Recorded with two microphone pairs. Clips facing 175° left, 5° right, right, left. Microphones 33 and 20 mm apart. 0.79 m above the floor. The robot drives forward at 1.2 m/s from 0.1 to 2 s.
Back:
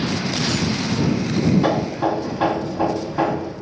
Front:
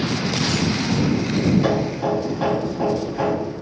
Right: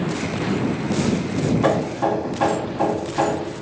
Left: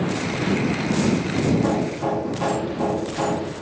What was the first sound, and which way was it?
Hammering, 115° right.